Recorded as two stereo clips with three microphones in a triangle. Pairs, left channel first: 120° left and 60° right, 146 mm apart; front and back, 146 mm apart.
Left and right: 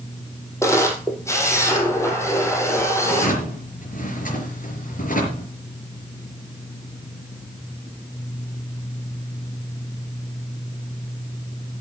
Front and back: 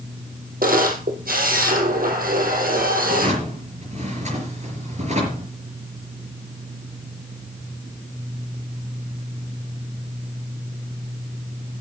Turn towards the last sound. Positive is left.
turn(degrees=140)